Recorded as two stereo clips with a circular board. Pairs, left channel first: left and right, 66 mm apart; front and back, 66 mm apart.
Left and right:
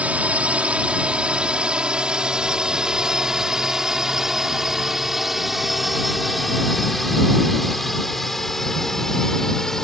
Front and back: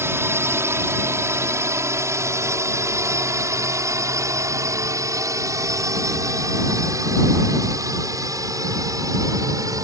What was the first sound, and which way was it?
A drone, 150° right.